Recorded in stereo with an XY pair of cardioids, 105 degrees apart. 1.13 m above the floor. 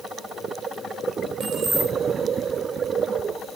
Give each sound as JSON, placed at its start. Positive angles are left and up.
{"t": 1.4, "sound": "keys jangling", "azimuth_deg": -65, "distance_m": 3.0}